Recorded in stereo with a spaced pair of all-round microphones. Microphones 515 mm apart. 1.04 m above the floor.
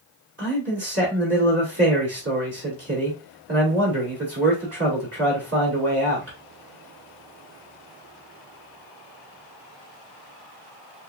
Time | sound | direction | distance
0.4 | a man speaking | 30° right (ahead or behind) | 2.5 m